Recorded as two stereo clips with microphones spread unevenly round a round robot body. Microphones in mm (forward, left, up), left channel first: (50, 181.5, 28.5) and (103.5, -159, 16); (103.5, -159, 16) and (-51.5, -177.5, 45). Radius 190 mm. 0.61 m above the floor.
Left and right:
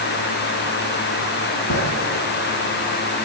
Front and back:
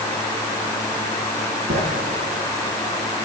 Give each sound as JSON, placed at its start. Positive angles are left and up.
{"t": 1.7, "sound": "writing", "azimuth_deg": 150, "distance_m": 4.5}